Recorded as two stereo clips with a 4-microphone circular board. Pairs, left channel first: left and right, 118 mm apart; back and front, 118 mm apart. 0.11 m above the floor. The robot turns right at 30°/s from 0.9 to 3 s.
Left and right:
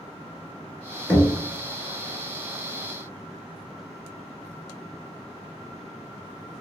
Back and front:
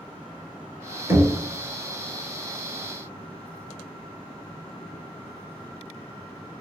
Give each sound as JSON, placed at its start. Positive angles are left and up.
{"t": 1.1, "sound": "knocking", "azimuth_deg": 35, "distance_m": 0.8}